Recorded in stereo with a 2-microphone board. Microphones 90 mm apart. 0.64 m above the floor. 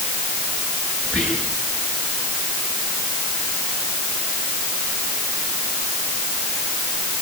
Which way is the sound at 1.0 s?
10° left (ahead or behind).